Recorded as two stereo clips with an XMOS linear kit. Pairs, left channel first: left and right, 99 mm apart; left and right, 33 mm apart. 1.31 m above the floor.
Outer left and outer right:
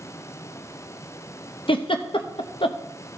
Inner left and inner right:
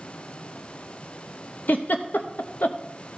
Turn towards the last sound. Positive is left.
turn(degrees=60)  # may be behind; listen again after turning